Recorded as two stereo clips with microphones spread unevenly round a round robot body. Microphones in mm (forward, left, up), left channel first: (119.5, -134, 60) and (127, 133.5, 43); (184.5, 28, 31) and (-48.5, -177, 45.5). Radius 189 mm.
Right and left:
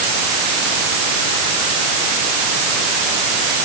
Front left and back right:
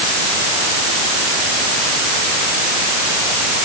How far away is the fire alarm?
No fire alarm in this recording.